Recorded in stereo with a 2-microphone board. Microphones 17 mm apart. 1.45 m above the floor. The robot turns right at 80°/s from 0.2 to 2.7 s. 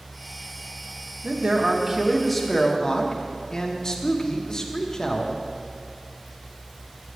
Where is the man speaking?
80° right, 0.9 m; by 5.4 s 40° left, 0.9 m.